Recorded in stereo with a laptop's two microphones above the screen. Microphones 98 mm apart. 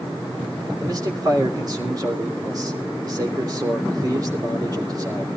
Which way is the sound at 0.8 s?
40° right (ahead or behind).